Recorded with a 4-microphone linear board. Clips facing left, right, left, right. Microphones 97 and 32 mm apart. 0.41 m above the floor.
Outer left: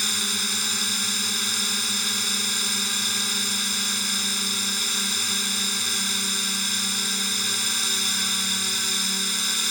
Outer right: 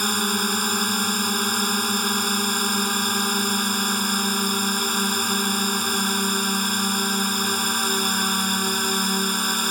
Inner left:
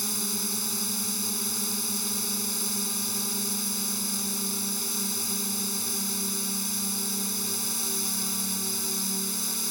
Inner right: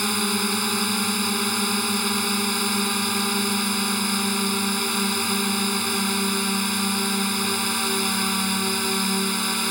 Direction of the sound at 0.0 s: 50° right (ahead or behind).